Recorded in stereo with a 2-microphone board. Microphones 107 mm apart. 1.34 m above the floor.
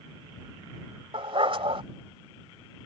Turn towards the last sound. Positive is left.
turn(degrees=-60)  # may be behind; listen again after turning